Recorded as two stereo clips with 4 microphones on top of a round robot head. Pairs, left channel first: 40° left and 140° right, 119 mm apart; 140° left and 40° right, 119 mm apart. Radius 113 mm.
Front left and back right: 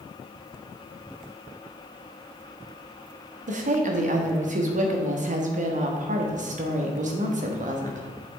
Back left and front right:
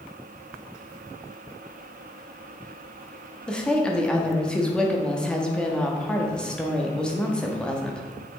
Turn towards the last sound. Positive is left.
turn(degrees=-135)